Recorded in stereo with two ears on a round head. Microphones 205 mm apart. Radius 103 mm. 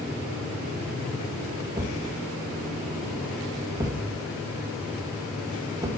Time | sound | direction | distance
1.8 | a thud | 15° right (ahead or behind) | 1.0 m